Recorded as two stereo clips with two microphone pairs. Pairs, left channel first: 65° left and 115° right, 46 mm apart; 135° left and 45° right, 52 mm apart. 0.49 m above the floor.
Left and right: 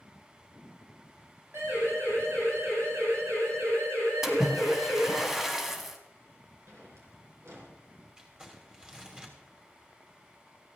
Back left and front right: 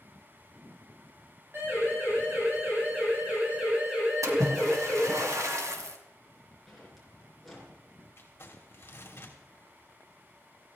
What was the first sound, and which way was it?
A siren, 85° right.